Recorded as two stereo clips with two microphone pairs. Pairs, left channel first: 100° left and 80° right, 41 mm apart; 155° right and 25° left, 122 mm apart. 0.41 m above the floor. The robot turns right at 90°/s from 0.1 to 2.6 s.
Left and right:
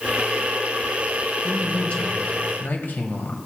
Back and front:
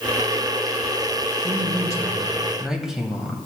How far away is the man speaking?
About 1.8 m.